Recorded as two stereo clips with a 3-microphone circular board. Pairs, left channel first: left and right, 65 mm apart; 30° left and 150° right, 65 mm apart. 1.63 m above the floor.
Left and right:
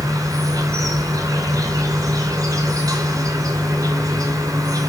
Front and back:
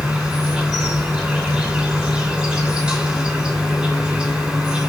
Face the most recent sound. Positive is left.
turn(degrees=-70)